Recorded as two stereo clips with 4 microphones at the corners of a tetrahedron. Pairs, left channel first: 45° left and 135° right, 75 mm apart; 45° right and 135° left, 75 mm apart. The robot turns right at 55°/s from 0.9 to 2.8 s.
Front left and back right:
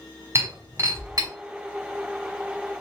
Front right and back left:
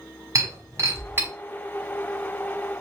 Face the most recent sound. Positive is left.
turn(degrees=-80)